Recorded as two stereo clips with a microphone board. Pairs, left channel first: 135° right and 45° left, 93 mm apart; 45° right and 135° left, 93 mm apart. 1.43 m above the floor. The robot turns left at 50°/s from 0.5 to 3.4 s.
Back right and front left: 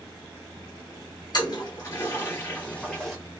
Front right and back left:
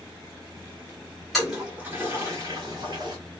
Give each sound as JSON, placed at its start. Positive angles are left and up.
{"t": 1.3, "sound": "a toilet flushing", "azimuth_deg": -135, "distance_m": 1.4}